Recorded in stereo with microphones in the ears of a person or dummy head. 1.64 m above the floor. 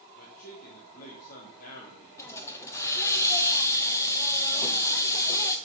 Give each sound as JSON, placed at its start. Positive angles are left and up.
{"t": 0.1, "sound": "a man speaking", "side_deg": 50, "distance_m": 3.0}
{"t": 2.2, "sound": "a hiss", "side_deg": 15, "distance_m": 1.2}